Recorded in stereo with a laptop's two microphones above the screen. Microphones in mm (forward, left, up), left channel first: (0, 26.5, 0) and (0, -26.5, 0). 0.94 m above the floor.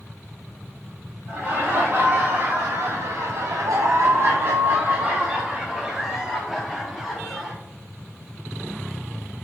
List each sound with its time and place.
1.3 s laughter: 40° right (ahead or behind), 1.5 m; by 7.5 s centre (ahead or behind), 2 m